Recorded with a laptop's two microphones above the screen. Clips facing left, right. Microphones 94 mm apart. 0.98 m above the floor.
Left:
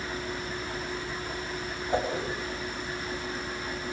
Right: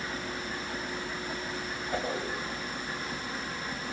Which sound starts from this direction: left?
A whoosh, at 1.9 s.